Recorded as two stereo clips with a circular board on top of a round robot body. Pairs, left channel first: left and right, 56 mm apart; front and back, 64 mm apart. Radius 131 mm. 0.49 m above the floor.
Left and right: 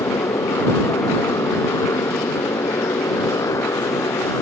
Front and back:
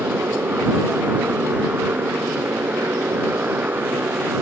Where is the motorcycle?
115° left.